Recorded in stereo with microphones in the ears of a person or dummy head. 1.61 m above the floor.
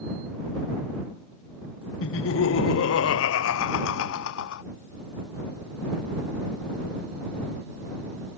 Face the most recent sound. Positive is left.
turn(degrees=70)  # may be behind; listen again after turning